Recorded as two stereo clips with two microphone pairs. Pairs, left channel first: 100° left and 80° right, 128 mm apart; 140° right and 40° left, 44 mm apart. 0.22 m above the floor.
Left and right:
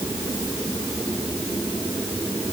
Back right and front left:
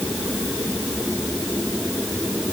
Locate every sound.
Only background noise.